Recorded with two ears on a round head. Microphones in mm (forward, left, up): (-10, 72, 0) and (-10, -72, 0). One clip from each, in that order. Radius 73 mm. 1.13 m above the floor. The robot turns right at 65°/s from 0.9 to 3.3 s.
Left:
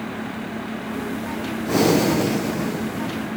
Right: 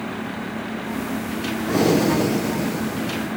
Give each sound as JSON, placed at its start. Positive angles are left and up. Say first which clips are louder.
{"t": 1.7, "sound": "breathing", "louder": "left 1 dB", "side_deg": 20}